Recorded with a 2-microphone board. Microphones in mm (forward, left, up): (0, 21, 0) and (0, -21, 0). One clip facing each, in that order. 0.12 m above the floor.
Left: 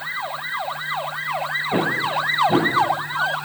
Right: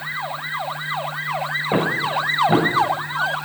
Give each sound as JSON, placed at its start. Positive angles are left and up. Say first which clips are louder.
{"t": 1.7, "sound": "footsteps", "louder": "right 1 dB", "side_deg": -65, "distance_m": 5.0}